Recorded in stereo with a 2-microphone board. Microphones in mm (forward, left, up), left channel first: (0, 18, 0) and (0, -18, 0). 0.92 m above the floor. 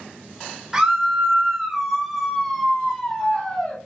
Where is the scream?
15° right (ahead or behind), 3 m; by 3.8 s 20° left (ahead or behind), 3.5 m.